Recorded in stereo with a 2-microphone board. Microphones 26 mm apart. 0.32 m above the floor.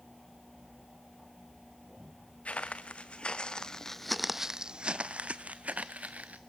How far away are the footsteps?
About 1.2 m.